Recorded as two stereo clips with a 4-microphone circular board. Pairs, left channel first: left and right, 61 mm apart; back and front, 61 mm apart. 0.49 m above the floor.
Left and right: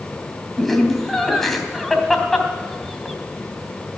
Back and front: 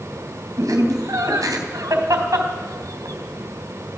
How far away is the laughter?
About 3 m.